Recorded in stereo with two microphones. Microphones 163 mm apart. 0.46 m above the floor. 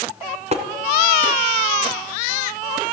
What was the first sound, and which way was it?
Tapping, 40° right (ahead or behind).